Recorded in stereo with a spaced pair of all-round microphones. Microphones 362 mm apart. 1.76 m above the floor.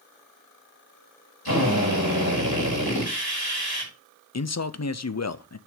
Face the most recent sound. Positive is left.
turn(degrees=45)  # may be behind; listen again after turning